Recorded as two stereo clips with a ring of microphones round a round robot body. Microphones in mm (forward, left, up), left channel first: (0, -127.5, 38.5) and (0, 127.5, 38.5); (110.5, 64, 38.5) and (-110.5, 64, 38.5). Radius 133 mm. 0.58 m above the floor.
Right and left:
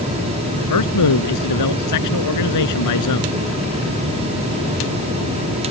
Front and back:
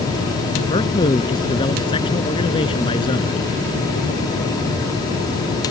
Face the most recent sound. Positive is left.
turn(degrees=-75)